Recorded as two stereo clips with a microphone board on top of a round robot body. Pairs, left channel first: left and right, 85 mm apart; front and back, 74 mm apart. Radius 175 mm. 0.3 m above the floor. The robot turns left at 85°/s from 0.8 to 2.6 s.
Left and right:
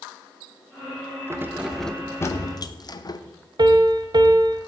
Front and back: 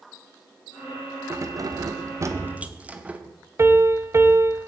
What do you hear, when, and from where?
1.3 s keys jangling: 140° right, 1.0 m; by 3.2 s 110° left, 1.0 m
3.6 s a piano: 125° right, 0.8 m